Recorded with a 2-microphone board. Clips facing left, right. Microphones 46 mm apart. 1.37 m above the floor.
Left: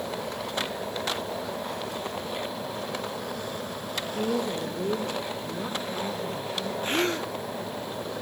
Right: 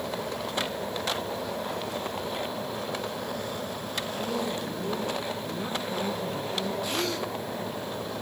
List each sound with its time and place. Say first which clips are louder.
4.0 s a woman speaking: left 3 dB; 55° left (ahead or behind), 1.8 m; by 6.7 s 35° right (ahead or behind), 1.5 m
6.8 s a gasp: left 3 dB; 35° left (ahead or behind), 0.9 m